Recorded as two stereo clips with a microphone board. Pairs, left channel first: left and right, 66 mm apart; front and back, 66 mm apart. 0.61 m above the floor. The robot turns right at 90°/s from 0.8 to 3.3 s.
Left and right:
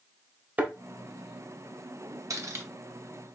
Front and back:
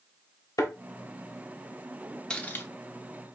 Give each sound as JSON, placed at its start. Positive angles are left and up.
{"t": 0.6, "sound": "a thud", "azimuth_deg": -25, "distance_m": 1.1}
{"t": 2.3, "sound": "cutlery clinking", "azimuth_deg": -70, "distance_m": 0.8}